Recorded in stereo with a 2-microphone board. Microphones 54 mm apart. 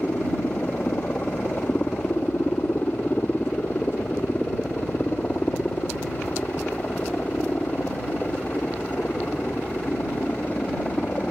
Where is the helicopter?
35° left (ahead or behind).